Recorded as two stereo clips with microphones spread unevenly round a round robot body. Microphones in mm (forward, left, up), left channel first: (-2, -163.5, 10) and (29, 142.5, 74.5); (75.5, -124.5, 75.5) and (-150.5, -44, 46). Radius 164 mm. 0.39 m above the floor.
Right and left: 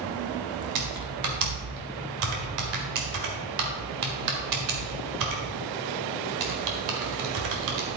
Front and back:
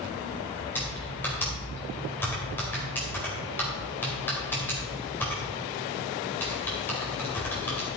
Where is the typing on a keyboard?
65° left, 2 m.